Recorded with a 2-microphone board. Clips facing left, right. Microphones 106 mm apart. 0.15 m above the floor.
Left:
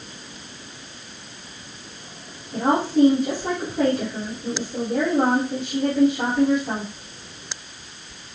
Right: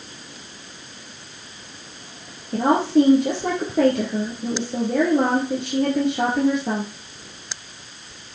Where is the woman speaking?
70° right (ahead or behind), 3 m.